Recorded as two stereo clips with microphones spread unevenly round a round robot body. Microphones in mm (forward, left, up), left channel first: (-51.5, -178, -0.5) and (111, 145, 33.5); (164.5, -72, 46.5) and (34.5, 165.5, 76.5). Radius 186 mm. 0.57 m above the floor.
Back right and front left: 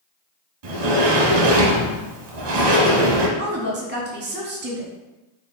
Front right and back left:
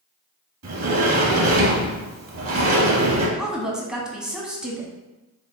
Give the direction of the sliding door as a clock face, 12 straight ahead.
9 o'clock.